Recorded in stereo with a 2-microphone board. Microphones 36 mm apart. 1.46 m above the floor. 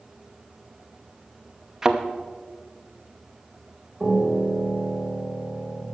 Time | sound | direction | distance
1.8 | a thud | 15° right (ahead or behind) | 0.8 m
4.0 | a piano | 45° right (ahead or behind) | 2.5 m